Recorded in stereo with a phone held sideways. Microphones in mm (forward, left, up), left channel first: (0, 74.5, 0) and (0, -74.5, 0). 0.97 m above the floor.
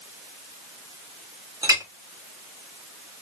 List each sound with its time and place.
1.6 s a clink: 25° right (ahead or behind), 1.0 m